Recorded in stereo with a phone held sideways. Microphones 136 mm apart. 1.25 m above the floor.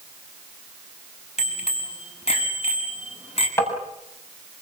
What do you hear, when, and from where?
1.4 s a bicycle bell: 50° left (ahead or behind), 6 m; by 3.5 s 45° left (ahead or behind), 7.5 m
3.6 s tapping: 15° left (ahead or behind), 7.5 m